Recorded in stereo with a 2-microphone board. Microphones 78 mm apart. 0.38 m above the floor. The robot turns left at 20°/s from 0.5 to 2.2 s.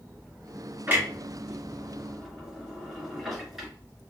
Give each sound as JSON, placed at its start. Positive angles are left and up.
{"t": 0.9, "sound": "a clunk", "side_deg": -30, "distance_m": 2.5}